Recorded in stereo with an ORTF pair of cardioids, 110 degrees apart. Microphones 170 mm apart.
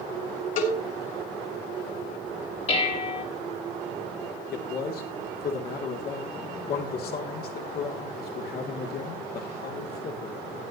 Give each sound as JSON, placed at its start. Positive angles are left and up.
{"t": 0.6, "sound": "a cowbell", "azimuth_deg": 55, "distance_m": 4.0}
{"t": 2.7, "sound": "dishes clattering", "azimuth_deg": 40, "distance_m": 2.5}
{"t": 4.5, "sound": "a man speaking", "azimuth_deg": 65, "distance_m": 2.5}